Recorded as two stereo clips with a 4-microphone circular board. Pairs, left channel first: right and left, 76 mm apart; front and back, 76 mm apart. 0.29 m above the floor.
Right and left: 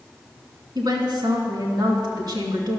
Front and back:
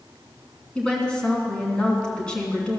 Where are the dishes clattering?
No dishes clattering in this recording.